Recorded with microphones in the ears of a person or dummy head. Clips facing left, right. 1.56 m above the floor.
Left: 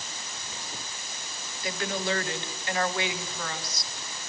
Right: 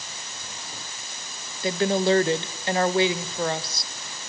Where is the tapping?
I don't hear tapping.